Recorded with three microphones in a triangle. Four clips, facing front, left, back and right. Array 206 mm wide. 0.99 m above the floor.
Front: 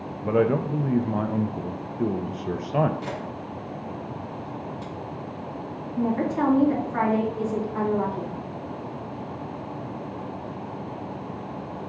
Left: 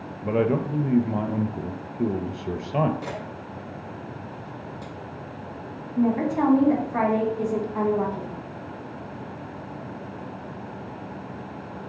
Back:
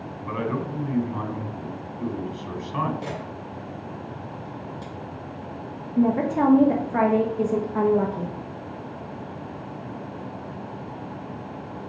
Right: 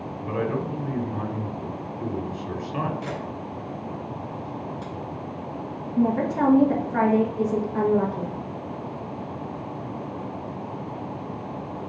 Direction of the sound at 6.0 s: 155° right.